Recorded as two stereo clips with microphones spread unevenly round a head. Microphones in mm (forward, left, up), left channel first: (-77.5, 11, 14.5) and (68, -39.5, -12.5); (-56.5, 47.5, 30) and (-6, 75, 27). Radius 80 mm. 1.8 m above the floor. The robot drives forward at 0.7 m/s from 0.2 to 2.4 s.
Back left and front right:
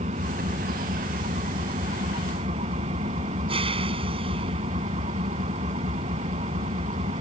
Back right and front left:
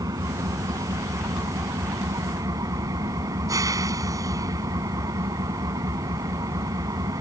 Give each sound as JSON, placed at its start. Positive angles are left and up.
{"t": 0.0, "sound": "an engine running", "azimuth_deg": 35}